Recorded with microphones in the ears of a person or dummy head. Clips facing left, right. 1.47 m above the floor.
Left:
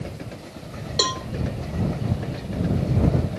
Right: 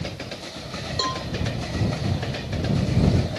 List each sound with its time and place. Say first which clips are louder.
1.0 s a cowbell: left 3 dB; 40° left (ahead or behind)